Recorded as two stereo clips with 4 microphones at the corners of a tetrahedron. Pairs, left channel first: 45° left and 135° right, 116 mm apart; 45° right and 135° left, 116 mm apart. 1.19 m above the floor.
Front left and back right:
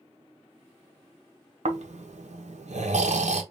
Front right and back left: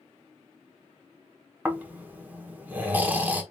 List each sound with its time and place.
1.6 s snoring: 150° right, 0.9 m